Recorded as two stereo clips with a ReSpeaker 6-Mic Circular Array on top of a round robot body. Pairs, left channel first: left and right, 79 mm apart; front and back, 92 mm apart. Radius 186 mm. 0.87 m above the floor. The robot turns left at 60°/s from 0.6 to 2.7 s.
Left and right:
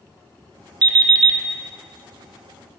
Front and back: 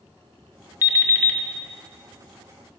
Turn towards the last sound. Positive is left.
turn(degrees=-165)